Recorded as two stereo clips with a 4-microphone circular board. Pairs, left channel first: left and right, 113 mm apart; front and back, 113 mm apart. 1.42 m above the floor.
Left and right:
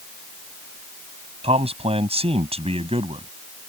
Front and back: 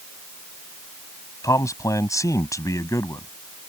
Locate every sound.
1.4 s a man speaking: 60° right